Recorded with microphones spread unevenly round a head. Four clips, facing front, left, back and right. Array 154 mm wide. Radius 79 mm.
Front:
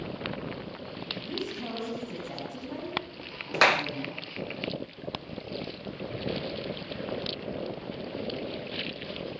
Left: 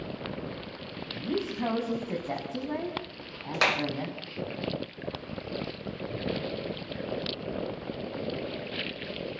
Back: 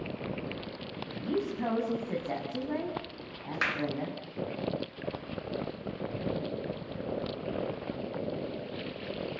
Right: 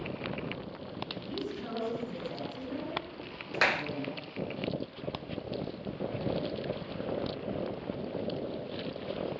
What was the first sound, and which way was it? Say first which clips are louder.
A woman speaking: left 8 dB, back 5 dB; 120° left.